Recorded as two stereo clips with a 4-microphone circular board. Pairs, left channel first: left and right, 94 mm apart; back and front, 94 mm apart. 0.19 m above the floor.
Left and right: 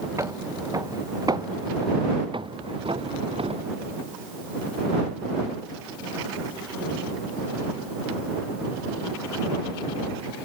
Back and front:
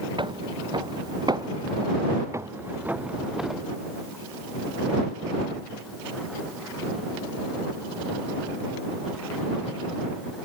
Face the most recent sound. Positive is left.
turn(degrees=-90)